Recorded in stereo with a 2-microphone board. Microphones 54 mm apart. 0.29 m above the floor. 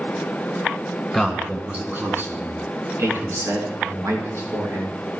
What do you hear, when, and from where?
1.1 s a man speaking: 10° right (ahead or behind), 2.5 m; by 4.9 s 75° right (ahead or behind), 5 m